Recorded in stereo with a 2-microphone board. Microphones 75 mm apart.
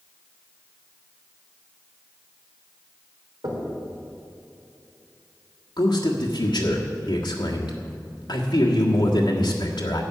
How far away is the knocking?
About 3.5 m.